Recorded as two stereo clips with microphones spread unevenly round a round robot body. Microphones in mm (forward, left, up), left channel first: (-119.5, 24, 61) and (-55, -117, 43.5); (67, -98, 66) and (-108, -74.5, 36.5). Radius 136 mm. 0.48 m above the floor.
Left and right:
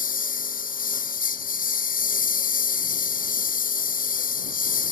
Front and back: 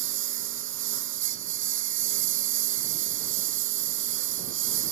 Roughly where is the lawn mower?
Behind left.